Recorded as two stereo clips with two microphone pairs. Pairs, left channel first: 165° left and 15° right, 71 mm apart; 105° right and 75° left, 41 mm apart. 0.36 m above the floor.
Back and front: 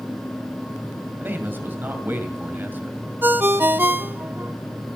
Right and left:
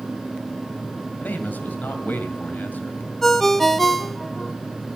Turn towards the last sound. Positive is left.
turn(degrees=-20)